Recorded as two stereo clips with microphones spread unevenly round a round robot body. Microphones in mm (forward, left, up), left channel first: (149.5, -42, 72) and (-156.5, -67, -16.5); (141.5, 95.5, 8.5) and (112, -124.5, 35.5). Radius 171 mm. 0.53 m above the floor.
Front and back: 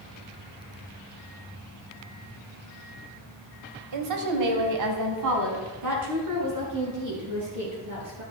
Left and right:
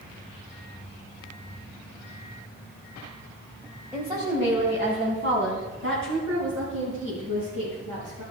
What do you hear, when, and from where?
3.9 s a woman speaking: 175° left, 2 m; by 8.2 s 140° right, 8 m